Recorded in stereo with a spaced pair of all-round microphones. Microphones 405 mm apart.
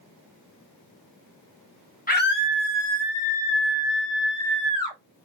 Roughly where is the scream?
Centre.